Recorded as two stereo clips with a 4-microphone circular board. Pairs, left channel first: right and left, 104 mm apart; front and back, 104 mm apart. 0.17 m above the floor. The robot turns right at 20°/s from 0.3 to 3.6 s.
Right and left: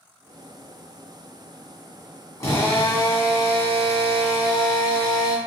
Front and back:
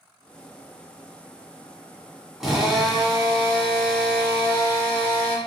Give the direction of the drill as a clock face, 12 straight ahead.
3 o'clock.